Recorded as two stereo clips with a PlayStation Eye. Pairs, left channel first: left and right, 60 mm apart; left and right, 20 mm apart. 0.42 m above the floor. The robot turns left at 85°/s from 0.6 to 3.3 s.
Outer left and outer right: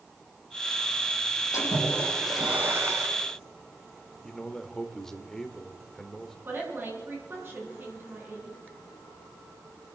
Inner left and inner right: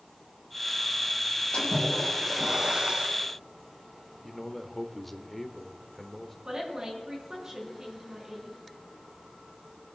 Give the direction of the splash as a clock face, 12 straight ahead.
10 o'clock.